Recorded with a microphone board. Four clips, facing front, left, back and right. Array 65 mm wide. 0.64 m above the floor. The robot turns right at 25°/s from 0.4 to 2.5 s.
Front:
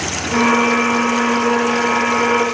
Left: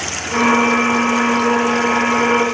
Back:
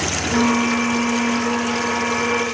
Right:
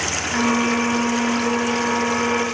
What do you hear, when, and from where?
Only background noise.